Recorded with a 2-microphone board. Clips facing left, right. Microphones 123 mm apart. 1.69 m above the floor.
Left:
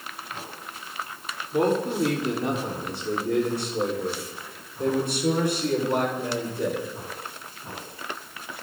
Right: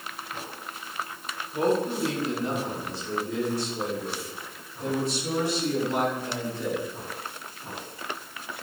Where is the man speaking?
75° left (ahead or behind), 5.5 m; by 6.8 s 55° left (ahead or behind), 8 m.